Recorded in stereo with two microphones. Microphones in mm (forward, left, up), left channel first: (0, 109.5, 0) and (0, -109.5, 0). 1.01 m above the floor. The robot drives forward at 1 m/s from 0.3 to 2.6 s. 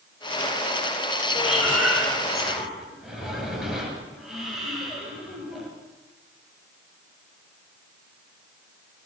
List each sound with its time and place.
1.4 s breathing: 5° right (ahead or behind), 7 m; by 5.7 s centre (ahead or behind), 8.5 m